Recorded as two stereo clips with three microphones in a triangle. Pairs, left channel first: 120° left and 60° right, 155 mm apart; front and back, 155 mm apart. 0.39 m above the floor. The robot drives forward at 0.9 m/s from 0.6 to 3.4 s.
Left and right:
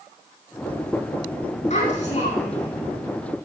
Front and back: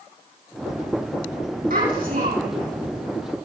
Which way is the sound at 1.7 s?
160° left.